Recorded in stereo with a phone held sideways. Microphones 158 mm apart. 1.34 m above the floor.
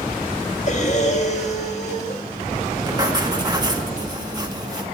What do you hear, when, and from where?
0.7 s breathing: 50° left (ahead or behind), 1.5 m
2.9 s writing: 25° right (ahead or behind), 1.6 m